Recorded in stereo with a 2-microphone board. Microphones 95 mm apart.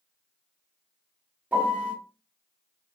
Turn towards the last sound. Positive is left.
turn(degrees=-15)  # may be behind; listen again after turning